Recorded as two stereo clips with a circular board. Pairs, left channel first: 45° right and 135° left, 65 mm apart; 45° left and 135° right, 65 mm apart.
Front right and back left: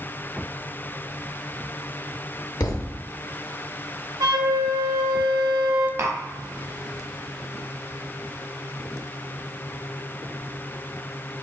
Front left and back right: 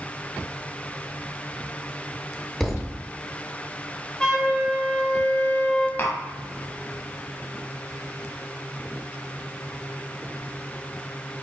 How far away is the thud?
About 0.5 m.